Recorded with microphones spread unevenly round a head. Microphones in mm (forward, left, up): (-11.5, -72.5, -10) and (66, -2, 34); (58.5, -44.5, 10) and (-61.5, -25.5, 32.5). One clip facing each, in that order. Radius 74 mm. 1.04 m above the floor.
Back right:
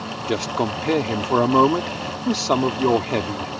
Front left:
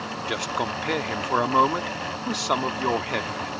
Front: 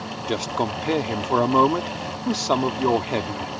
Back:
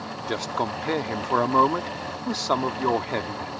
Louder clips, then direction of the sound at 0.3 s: Back right 6 dB, front 3 dB; 85° right.